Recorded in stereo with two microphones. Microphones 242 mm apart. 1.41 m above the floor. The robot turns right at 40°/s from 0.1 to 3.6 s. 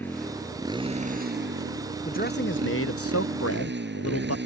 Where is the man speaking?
35° left; by 4.4 s 95° left.